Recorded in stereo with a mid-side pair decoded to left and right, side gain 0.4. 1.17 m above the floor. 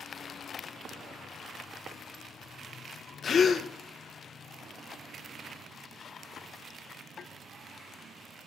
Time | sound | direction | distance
3.2 | a gasp | 55° left | 0.6 m